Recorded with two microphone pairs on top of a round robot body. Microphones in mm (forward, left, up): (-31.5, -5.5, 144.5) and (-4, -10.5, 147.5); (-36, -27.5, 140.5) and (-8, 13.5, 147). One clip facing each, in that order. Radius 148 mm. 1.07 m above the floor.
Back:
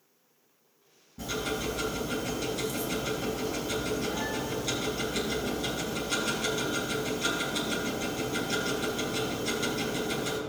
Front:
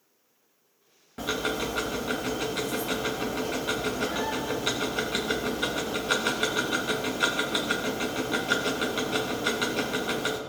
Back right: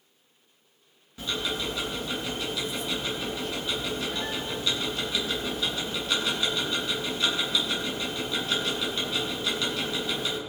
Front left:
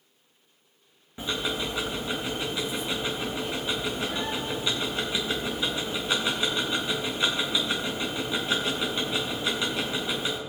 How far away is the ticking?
About 0.6 m.